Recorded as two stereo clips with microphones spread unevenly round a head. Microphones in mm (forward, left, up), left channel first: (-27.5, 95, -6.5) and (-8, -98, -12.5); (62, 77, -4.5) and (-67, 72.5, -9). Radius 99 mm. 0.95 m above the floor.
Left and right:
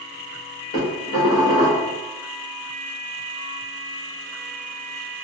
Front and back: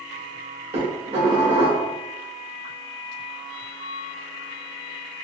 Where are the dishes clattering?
140° left, 1.3 m.